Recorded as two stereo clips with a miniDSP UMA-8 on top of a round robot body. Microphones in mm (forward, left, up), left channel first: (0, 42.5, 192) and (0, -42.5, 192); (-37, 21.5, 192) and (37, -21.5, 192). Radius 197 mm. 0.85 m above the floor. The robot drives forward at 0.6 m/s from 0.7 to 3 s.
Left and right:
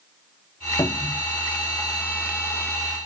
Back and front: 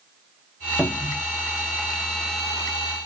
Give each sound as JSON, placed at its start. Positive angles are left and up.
{"t": 0.8, "sound": "a cupboard door", "azimuth_deg": 50, "distance_m": 1.5}